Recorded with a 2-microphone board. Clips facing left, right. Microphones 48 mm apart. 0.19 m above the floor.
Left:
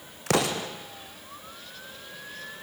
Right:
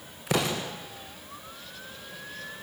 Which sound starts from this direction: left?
An explosion, at 0.3 s.